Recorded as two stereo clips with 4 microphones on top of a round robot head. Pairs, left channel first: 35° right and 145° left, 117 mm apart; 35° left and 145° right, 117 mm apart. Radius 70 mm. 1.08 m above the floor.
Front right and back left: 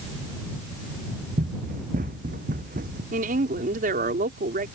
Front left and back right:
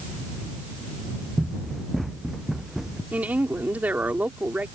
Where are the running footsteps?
125° left; by 3.0 s 130° left.